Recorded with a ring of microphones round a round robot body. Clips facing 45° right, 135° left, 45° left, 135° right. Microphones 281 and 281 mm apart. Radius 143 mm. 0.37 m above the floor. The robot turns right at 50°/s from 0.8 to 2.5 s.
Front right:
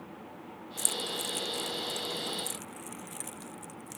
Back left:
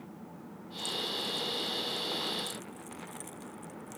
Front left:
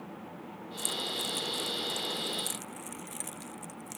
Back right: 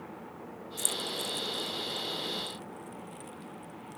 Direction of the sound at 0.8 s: 60° right.